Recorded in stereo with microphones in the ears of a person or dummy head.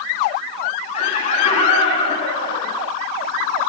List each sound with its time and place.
0.9 s laughter: 45° left (ahead or behind), 9.5 m; by 2.9 s 35° left (ahead or behind), 8.5 m